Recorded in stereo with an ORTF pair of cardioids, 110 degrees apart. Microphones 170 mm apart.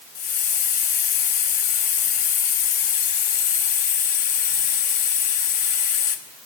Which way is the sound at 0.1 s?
55° left.